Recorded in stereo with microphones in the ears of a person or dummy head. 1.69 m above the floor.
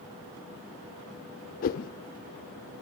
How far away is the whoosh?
About 0.6 m.